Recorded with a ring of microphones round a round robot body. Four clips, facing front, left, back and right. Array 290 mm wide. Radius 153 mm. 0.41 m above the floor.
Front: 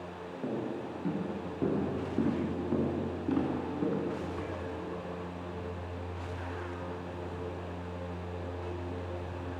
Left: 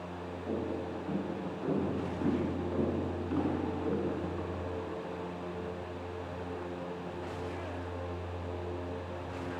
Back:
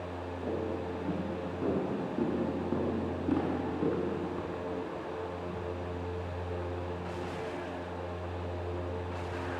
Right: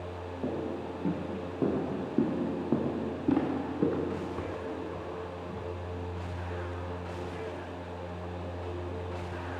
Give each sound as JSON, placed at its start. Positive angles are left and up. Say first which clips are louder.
{"t": 0.4, "sound": "footsteps", "louder": "right 1 dB, back 1 dB", "azimuth_deg": -65, "distance_m": 9.5}